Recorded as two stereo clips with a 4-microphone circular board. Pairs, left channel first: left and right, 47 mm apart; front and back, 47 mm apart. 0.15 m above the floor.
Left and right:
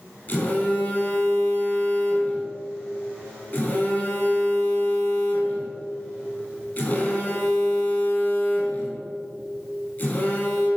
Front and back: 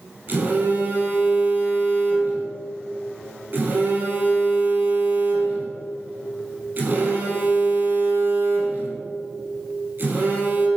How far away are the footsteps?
I don't hear footsteps.